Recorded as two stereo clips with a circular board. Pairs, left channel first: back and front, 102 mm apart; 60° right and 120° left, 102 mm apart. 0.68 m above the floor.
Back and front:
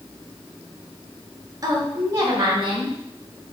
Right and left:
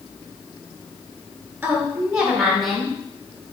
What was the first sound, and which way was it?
A woman speaking, 45° left.